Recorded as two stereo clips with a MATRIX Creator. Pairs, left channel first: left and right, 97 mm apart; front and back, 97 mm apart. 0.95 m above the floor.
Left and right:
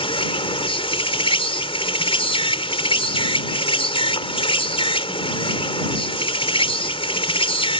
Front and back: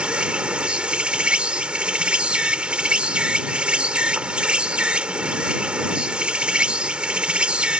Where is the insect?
100° left.